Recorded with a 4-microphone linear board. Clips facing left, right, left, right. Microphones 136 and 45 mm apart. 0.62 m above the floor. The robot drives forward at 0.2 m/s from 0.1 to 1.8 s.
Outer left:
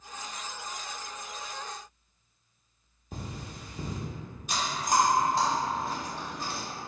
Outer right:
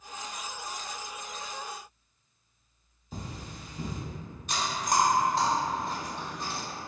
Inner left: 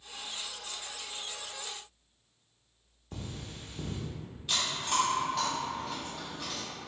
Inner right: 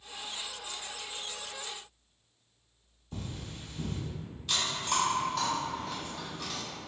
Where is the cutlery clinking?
60° left (ahead or behind), 0.9 m.